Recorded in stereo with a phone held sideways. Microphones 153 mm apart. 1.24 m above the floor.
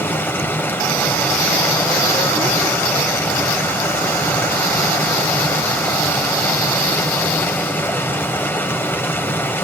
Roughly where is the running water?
Centre.